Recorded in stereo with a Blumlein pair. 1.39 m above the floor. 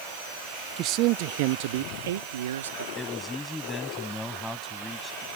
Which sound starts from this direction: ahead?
A man speaking, at 3.0 s.